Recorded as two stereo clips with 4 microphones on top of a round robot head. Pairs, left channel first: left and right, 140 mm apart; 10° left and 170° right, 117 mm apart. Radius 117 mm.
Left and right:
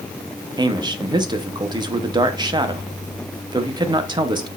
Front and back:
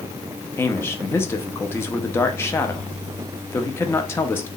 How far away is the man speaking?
About 0.9 m.